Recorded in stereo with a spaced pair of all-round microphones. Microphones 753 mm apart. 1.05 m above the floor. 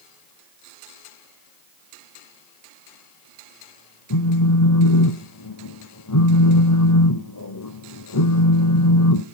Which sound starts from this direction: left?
A phone buzzing, at 4.1 s.